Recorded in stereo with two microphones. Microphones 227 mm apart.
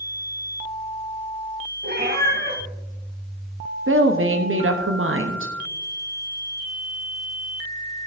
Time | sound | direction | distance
1.8 | a cat meowing | 45° right (ahead or behind) | 2.5 m
3.9 | a woman speaking | 65° right (ahead or behind) | 0.8 m